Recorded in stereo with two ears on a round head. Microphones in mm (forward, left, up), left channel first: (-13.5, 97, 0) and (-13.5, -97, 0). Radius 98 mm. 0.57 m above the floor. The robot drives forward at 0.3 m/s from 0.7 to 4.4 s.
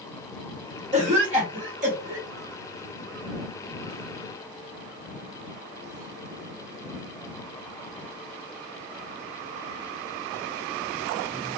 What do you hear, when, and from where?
0.9 s a cough: 35° right (ahead or behind), 1.6 m; by 2.3 s 40° right (ahead or behind), 1.4 m